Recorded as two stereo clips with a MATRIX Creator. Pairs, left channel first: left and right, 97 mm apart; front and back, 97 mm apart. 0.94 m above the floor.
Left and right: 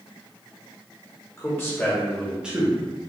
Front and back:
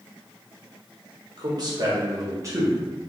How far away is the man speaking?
About 1.5 m.